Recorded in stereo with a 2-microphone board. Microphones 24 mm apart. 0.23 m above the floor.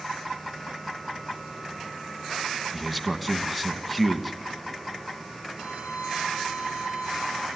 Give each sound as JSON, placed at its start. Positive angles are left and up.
{"t": 2.7, "sound": "a man speaking", "side_deg": 0, "distance_m": 1.9}
{"t": 5.6, "sound": "a violin", "side_deg": -75, "distance_m": 8.0}